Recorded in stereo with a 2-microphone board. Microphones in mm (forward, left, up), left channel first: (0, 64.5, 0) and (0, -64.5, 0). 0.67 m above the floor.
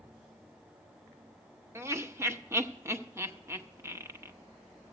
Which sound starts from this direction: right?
Laughter, at 1.8 s.